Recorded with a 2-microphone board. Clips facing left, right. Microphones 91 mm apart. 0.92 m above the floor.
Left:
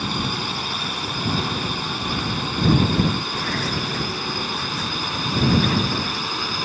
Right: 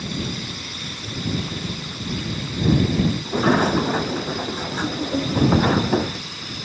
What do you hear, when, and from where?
0.0 s a drone: 65° left (ahead or behind); by 6.6 s 70° left (ahead or behind)
3.2 s a sliding door: 55° right (ahead or behind)